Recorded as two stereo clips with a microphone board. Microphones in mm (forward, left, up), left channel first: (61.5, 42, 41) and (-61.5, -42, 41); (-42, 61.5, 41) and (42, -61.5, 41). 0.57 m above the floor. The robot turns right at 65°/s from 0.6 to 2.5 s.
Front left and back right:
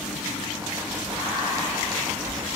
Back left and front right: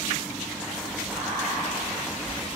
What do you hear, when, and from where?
1.0 s whispering: 25° left, 0.7 m; by 2.6 s 120° left, 0.7 m